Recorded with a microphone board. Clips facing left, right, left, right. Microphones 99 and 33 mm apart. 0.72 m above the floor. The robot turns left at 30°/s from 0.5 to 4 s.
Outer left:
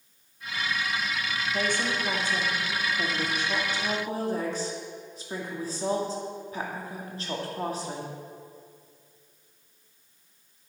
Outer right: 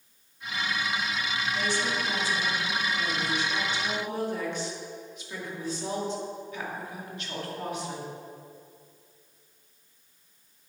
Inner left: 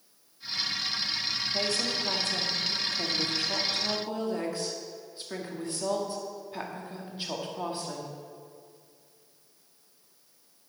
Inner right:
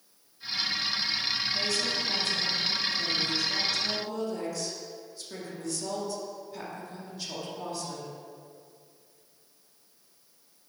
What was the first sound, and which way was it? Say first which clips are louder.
A woman speaking: outer left 2 dB, even; 120° left.